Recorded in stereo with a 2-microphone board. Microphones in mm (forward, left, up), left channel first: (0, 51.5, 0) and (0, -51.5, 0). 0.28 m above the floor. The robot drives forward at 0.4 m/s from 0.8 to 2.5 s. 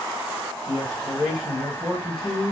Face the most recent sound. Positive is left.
turn(degrees=5)  # may be behind; listen again after turning